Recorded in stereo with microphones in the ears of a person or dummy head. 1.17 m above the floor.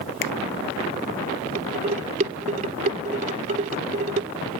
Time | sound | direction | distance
0.2 | a finger snap | 65° left (ahead or behind) | ?
1.6 | dishes clattering | 45° right (ahead or behind) | ?